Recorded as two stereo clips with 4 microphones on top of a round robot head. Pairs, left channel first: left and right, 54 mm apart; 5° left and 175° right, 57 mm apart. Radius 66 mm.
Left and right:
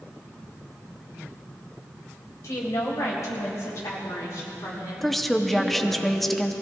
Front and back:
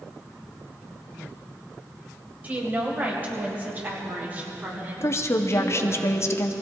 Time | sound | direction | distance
2.4 | a woman speaking | 120° left | 3.5 m
5.0 | a woman speaking | 5° left | 1.4 m